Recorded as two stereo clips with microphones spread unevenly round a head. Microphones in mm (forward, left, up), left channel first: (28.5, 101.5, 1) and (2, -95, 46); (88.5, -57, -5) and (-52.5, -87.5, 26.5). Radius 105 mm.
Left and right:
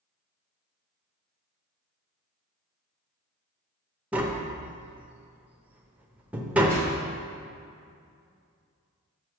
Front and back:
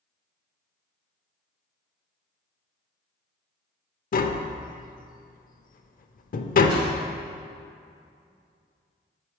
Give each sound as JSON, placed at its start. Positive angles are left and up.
{"t": 4.1, "sound": "tapping", "azimuth_deg": -20, "distance_m": 0.5}
{"t": 6.7, "sound": "a whoosh", "azimuth_deg": 175, "distance_m": 1.6}